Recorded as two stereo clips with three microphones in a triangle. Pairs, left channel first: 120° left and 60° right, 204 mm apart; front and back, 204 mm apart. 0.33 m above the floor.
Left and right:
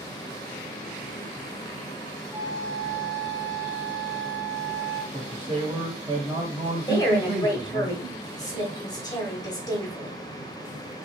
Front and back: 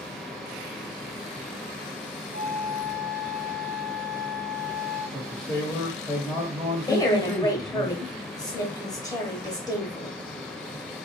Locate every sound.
2.3 s a flute: 135° right, 1.3 m
5.1 s a man speaking: 80° right, 1.2 m
6.9 s a woman speaking: 60° left, 1.1 m